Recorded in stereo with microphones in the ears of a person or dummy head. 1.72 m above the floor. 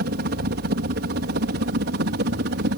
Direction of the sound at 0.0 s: 55° right (ahead or behind).